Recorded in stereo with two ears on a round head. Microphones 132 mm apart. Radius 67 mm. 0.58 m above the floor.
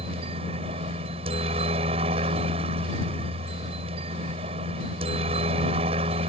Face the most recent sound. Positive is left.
turn(degrees=-40)  # may be behind; listen again after turning